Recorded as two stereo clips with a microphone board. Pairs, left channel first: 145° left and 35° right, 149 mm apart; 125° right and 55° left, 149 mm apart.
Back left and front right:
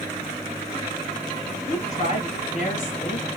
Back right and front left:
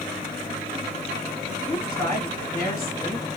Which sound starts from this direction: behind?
A woman speaking, at 1.7 s.